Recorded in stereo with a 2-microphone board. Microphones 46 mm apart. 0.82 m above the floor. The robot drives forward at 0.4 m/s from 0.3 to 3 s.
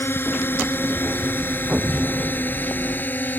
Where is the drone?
55° left (ahead or behind); by 3.4 s 45° left (ahead or behind).